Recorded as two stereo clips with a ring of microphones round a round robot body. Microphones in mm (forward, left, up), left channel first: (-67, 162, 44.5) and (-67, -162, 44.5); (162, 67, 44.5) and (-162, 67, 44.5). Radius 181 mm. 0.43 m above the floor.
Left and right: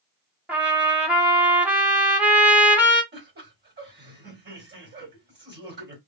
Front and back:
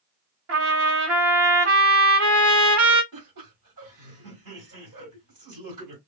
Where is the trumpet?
175° right, 1.2 m.